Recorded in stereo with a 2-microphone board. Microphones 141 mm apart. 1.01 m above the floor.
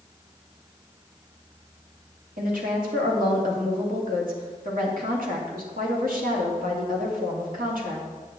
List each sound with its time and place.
2.4 s a woman speaking: 75° right (ahead or behind), 2.5 m